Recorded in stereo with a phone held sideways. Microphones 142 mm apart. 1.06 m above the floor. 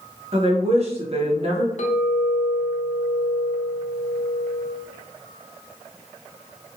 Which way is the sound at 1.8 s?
60° left (ahead or behind).